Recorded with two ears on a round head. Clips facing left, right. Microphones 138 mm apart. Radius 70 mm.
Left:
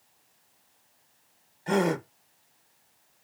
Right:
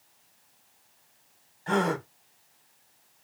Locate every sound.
1.7 s a gasp: 15° left (ahead or behind), 0.6 m